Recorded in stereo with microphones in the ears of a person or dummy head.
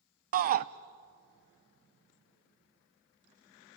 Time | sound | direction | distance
0.3 | a shout | 50° right (ahead or behind) | 0.7 m